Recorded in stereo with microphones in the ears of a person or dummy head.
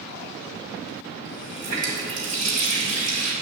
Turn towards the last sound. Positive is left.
turn(degrees=-50)  # may be behind; listen again after turning